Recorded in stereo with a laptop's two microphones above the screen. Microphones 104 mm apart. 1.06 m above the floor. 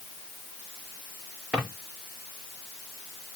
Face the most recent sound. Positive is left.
turn(degrees=-10)  # may be behind; listen again after turning